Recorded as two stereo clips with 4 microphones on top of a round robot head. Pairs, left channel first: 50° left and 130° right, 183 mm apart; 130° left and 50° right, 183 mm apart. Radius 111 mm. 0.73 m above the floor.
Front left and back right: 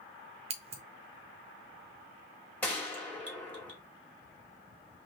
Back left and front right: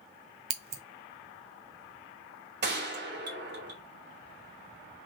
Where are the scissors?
70° right, 0.7 m.